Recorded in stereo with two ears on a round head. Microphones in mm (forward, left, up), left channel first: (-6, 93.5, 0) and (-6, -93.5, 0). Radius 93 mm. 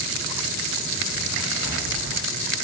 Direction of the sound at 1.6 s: 60° left (ahead or behind).